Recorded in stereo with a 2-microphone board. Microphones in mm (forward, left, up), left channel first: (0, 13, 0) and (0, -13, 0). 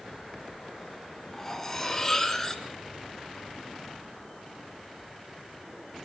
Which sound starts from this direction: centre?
Cutlery clinking, at 1.3 s.